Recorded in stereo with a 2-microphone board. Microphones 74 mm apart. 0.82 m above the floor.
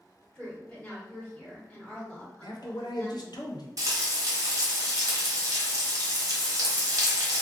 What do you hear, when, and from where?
0.3 s a woman speaking: 10° left (ahead or behind), 1.6 m
2.4 s a man speaking: 60° left (ahead or behind), 0.7 m
3.8 s frying: 50° right (ahead or behind), 1.0 m